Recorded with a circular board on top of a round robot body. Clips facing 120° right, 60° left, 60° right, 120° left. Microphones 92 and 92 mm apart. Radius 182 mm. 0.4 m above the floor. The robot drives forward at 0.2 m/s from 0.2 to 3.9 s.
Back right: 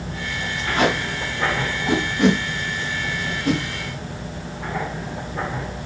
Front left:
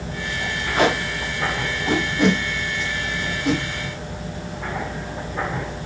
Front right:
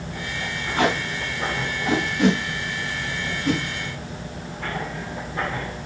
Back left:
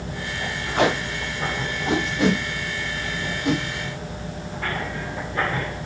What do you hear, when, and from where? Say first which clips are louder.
0.8 s tape being pulled: front left 1 dB, back left 1 dB; 105° left, 2 m; by 3.6 s 120° left, 2 m